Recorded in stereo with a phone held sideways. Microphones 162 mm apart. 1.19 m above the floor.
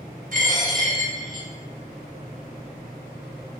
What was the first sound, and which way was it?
A dropped coin, 55° right (ahead or behind).